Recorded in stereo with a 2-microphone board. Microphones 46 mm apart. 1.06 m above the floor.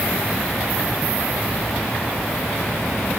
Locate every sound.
Only background noise.